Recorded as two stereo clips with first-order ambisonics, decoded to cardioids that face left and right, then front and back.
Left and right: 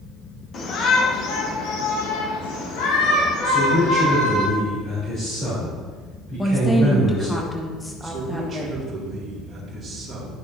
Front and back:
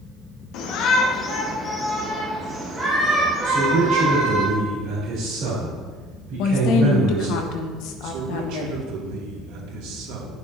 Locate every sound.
0.5 s a shout: 30° left, 1.5 m; by 4.4 s 115° left, 4 m
3.4 s a man speaking: 145° left, 3 m
6.4 s a woman speaking: 5° left, 1.1 m
8.0 s a man speaking: 165° right, 2.5 m